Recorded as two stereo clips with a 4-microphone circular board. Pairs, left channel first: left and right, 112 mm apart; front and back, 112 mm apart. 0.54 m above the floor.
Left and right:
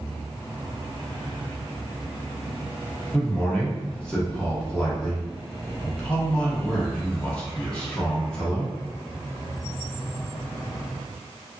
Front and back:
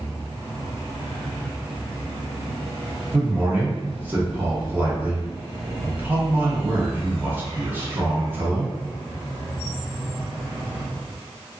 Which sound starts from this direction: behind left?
A man speaking, at 3.1 s.